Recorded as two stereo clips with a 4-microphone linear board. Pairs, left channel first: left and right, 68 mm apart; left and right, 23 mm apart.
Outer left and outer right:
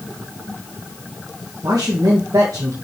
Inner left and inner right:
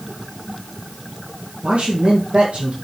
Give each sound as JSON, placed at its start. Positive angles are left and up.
{"t": 1.6, "sound": "a man speaking", "side_deg": -75, "distance_m": 1.9}